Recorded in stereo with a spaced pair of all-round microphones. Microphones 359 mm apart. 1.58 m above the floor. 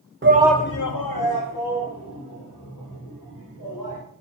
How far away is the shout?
About 0.7 m.